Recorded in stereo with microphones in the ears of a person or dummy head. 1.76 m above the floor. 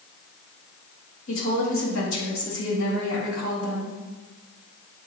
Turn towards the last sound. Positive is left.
turn(degrees=80)